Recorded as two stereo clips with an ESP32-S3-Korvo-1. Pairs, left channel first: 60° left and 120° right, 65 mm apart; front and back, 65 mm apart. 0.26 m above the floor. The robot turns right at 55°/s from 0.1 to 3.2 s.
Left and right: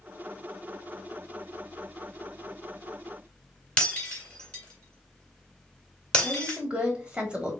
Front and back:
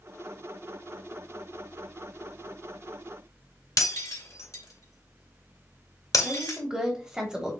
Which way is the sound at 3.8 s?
15° right.